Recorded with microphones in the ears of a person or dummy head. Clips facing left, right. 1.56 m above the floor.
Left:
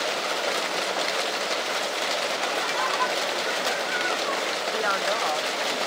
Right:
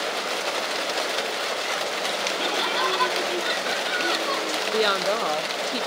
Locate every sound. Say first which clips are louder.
2.4 s laughter: right 2 dB; 50° right (ahead or behind)
4.7 s a woman speaking: right 6 dB; 45° right (ahead or behind)